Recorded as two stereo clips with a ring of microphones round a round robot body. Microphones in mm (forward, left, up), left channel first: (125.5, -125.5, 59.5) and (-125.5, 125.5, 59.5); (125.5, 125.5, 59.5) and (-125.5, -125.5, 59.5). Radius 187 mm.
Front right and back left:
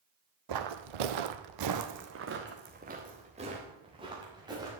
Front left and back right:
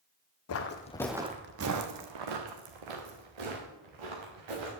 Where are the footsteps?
95° left, 1.2 m; by 4.7 s 145° right, 4.5 m.